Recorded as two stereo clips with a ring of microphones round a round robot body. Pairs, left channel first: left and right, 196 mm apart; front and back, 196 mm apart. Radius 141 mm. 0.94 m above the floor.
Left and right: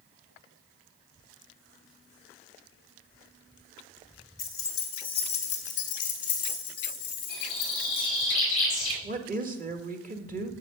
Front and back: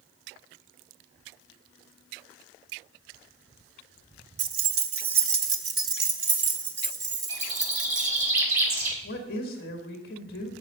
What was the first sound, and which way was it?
Keys jangling, straight behind.